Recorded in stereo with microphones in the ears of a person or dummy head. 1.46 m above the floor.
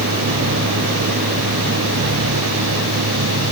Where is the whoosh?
No whoosh in this recording.